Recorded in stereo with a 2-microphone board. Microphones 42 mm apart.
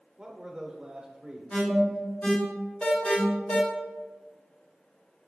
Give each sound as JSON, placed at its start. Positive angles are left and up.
{"t": 0.2, "sound": "a man speaking", "side_deg": -20, "distance_m": 0.8}
{"t": 1.5, "sound": "an alarm", "side_deg": 35, "distance_m": 1.2}